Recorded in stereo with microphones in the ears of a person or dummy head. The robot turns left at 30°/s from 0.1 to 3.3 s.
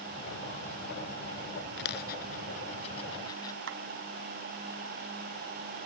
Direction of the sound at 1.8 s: 70° left (ahead or behind).